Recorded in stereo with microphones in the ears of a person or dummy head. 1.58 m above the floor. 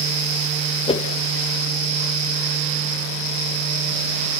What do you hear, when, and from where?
0.9 s a whoosh: 25° left (ahead or behind), 1.5 m